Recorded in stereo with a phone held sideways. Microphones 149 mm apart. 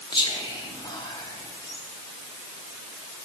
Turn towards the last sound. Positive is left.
turn(degrees=30)  # may be behind; listen again after turning